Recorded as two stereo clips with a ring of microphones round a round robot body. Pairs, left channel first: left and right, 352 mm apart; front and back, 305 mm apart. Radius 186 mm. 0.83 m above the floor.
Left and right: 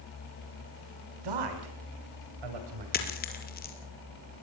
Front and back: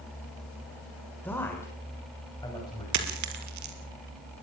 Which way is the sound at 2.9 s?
155° left.